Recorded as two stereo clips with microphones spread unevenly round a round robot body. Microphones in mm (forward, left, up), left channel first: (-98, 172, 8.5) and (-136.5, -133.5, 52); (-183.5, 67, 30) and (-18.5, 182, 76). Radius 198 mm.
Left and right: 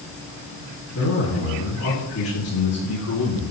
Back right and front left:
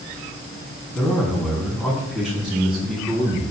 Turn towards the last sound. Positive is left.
turn(degrees=120)